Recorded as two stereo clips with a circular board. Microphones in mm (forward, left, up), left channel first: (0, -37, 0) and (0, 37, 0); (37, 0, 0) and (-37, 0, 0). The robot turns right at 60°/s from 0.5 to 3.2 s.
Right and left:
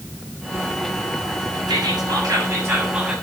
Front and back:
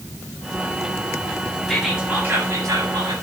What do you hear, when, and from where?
1.7 s whispering: 85° left, 7.5 m; by 3.1 s 175° left, 7.5 m